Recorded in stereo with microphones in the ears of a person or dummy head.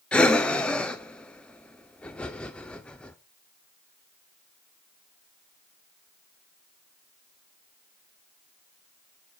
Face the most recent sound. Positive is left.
turn(degrees=5)  # may be behind; listen again after turning